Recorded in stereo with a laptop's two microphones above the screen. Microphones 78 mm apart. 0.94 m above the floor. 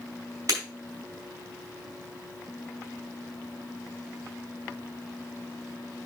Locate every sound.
0.5 s breaking glass: 45° right (ahead or behind), 4.5 m